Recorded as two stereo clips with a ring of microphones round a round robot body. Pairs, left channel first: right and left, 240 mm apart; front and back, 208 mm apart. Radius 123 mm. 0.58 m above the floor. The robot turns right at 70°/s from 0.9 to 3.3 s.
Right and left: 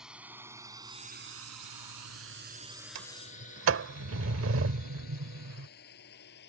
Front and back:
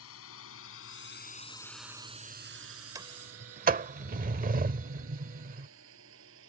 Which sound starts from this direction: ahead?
A drone, at 0.0 s.